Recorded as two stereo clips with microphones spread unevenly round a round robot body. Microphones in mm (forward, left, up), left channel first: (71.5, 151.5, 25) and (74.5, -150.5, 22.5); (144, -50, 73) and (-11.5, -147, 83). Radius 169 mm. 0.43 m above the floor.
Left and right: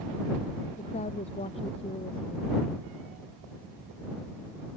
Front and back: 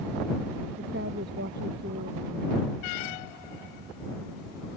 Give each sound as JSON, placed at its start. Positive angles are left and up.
{"t": 0.8, "sound": "a woman speaking", "azimuth_deg": 165}